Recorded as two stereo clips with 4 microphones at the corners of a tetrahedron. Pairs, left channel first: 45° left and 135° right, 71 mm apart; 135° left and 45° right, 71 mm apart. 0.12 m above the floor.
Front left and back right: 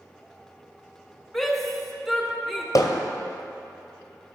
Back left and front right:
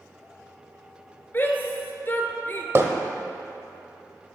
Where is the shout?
130° left, 1.4 m.